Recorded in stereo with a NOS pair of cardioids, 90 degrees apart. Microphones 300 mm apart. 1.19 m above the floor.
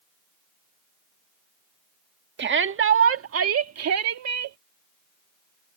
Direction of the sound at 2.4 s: 35° right.